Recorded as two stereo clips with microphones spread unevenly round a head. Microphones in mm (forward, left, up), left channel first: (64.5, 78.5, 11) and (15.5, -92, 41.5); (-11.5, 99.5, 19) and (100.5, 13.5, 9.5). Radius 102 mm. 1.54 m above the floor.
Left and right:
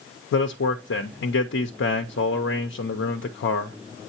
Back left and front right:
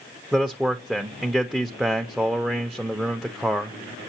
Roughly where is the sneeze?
I don't hear a sneeze.